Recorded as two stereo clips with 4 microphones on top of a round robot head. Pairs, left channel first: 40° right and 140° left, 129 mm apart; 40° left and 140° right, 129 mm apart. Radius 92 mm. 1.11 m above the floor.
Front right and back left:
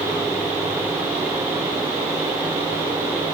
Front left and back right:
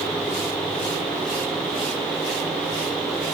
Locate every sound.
Only background noise.